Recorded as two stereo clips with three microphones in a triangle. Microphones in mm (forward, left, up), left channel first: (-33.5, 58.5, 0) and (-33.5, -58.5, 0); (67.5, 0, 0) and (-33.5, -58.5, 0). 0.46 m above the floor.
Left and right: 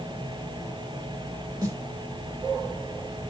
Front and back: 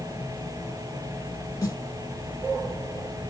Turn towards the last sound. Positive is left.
turn(degrees=-35)